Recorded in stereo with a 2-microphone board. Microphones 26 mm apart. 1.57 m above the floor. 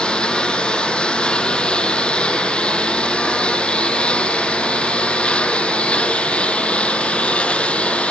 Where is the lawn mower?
40° left (ahead or behind); by 8.1 s 50° left (ahead or behind).